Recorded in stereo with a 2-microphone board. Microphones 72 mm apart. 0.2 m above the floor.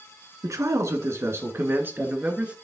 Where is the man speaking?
50° right (ahead or behind), 2.5 m; by 2.5 s 15° right (ahead or behind), 2.5 m.